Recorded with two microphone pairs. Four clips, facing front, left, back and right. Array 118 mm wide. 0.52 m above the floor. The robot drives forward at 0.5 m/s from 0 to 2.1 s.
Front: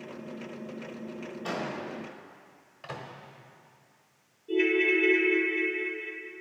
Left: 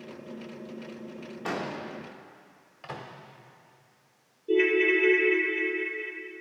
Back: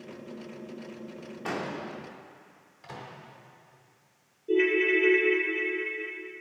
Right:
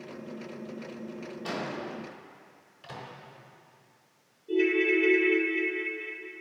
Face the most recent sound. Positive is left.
turn(degrees=110)